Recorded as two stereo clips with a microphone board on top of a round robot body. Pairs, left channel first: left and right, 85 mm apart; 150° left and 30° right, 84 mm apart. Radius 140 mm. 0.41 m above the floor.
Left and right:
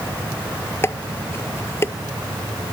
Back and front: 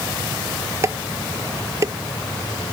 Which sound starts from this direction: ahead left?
Dishes clattering, at 0.8 s.